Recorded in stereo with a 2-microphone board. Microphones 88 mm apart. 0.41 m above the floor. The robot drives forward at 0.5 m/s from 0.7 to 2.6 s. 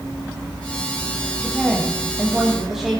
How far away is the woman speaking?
About 3 m.